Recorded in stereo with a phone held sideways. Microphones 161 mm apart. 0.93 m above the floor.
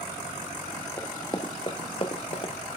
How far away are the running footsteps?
About 1.1 m.